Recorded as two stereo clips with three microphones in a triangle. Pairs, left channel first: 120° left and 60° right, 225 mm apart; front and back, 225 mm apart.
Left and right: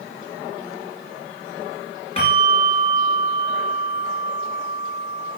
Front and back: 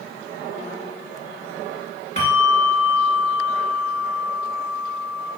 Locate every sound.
2.2 s a bell: 60° left, 1.7 m